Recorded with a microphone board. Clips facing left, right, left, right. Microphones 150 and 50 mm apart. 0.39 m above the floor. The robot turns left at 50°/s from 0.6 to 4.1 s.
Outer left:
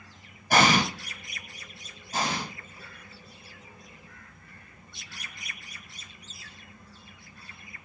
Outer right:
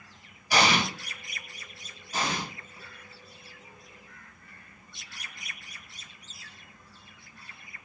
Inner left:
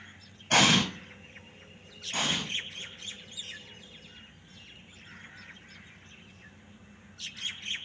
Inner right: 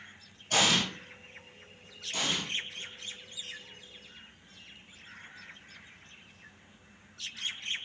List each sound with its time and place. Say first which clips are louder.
0.5 s an explosion: outer left 3 dB, inner left 4 dB; 50° left (ahead or behind), 0.6 m; by 0.8 s 35° left (ahead or behind), 0.6 m
2.1 s an explosion: outer left 1 dB, inner left 2 dB; 40° left (ahead or behind), 1.2 m; by 2.4 s 25° left (ahead or behind), 1.2 m